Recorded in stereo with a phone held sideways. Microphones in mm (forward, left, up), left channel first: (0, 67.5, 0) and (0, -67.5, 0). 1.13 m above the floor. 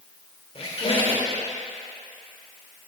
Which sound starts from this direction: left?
A squeak, at 0.6 s.